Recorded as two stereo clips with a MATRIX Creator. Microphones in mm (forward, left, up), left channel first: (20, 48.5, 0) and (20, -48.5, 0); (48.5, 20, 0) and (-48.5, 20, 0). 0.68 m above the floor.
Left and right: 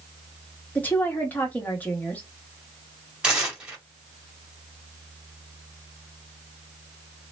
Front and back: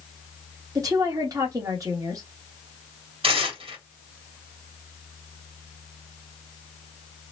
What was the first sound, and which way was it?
A woman speaking, 155° left.